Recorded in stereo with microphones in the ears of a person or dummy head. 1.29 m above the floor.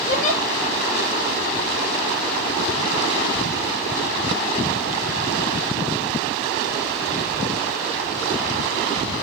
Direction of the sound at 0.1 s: 45° left (ahead or behind).